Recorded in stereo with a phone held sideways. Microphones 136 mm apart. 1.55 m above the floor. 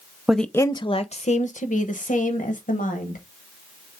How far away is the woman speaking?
About 0.6 m.